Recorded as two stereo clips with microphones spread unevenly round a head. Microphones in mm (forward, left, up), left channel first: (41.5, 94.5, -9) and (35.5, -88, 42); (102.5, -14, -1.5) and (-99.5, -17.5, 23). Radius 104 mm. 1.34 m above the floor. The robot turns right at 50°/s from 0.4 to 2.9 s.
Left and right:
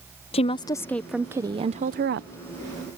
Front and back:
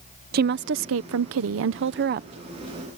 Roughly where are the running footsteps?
No running footsteps in this recording.